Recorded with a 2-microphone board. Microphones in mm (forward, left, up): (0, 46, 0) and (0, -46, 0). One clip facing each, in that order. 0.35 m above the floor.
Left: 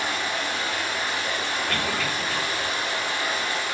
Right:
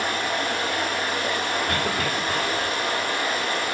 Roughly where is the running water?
Right.